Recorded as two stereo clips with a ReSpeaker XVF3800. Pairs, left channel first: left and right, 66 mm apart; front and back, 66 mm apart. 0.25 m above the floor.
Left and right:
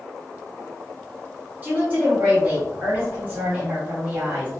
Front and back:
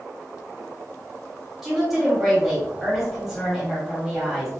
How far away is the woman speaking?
About 1.5 m.